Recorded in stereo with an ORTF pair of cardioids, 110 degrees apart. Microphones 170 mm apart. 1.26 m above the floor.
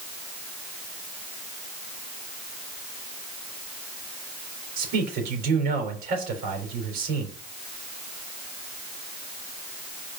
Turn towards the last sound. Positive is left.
turn(degrees=-65)